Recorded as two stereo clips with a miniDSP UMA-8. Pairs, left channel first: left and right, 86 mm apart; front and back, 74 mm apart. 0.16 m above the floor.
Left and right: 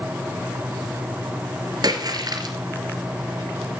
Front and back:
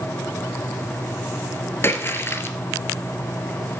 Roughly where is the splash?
Ahead right.